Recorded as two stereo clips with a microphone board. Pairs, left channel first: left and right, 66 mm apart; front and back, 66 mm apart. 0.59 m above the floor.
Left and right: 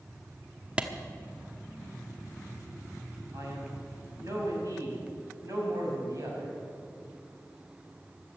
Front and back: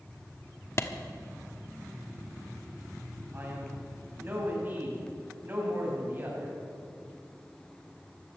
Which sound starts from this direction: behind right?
A man speaking, at 3.3 s.